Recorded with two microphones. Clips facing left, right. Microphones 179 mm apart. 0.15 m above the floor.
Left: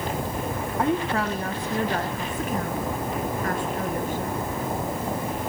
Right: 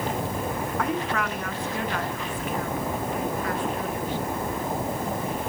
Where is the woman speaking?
25° left (ahead or behind), 1.7 m; by 4.4 s 45° left (ahead or behind), 3 m.